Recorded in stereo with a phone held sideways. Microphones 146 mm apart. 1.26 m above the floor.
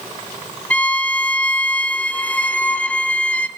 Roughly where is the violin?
Centre.